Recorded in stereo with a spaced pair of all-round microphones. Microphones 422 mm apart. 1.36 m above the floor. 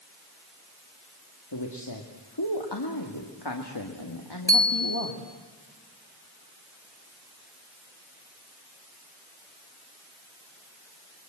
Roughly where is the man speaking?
Left.